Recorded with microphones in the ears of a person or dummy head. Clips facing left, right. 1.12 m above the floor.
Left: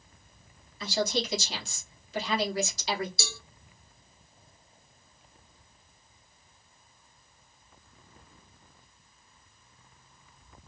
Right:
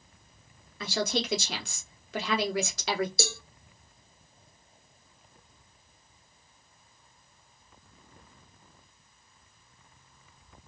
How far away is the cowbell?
About 0.5 m.